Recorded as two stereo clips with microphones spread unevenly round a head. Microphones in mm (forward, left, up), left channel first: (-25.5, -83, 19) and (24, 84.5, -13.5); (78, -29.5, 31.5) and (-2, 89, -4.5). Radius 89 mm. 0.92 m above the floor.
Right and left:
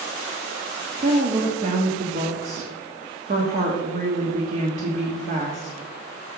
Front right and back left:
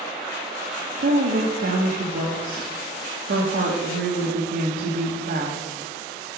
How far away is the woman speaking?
About 1.4 m.